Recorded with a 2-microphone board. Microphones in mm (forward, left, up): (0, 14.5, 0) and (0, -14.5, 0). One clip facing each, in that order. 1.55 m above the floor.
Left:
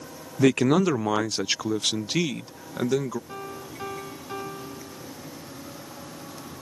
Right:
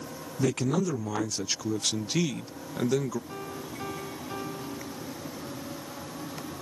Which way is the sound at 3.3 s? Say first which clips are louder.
Left 1 dB; 10° left (ahead or behind).